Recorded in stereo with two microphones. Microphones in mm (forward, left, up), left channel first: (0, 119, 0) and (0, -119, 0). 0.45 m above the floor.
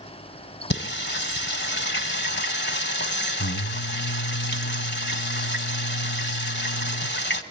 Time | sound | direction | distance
0.7 | singing | 45° left (ahead or behind) | 1.0 m